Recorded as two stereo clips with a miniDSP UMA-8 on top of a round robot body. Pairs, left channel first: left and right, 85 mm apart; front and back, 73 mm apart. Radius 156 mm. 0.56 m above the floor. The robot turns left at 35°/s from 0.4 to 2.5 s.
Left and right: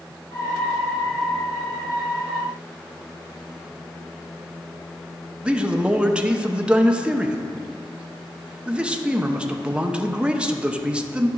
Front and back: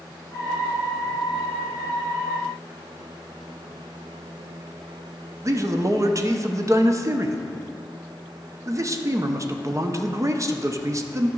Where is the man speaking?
165° right, 0.8 m.